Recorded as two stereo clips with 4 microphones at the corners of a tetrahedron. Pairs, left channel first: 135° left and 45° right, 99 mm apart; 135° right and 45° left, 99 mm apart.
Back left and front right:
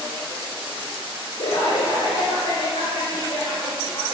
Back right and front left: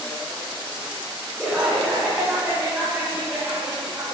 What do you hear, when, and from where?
1.4 s laughter: 125° left, 3.5 m; by 4.2 s 110° left, 7 m